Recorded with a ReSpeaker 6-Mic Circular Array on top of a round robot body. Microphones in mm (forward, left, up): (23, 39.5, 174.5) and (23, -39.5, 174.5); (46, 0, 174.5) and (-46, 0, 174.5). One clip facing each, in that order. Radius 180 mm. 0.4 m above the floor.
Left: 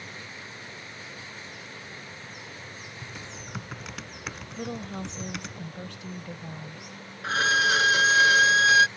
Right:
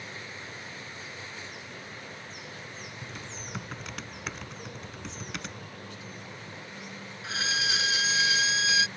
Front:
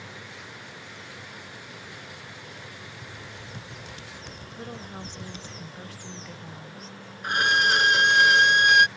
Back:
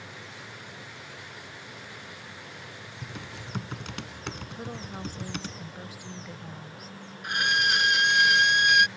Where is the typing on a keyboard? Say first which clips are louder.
Even, back 1 dB; straight behind.